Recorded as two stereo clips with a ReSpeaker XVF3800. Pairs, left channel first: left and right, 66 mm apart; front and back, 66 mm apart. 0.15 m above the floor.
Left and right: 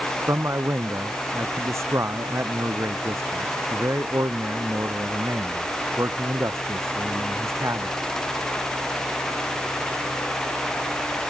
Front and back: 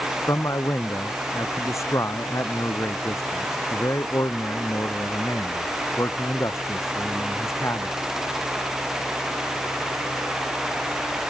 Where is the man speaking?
45° right.